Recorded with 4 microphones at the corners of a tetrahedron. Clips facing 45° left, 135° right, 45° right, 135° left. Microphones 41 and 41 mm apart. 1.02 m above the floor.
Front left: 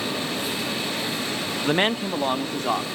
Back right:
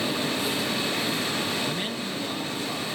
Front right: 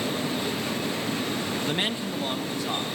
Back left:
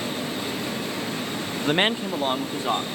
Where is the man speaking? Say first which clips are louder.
Front left 8 dB, back left 5 dB; 80° left, 0.7 m.